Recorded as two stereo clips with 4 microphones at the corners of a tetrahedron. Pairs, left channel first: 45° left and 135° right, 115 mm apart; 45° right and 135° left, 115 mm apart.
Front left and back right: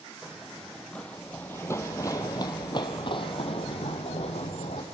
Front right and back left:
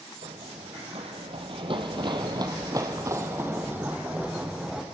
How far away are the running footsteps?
About 2 m.